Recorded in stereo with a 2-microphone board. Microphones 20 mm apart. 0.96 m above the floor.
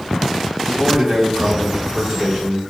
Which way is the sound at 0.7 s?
55° right (ahead or behind).